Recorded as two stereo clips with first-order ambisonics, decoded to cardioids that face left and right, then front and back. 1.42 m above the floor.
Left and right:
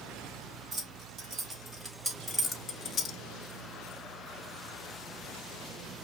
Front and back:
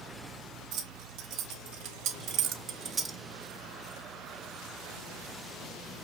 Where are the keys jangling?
155° right, 1.4 m; by 3.2 s 105° left, 0.6 m.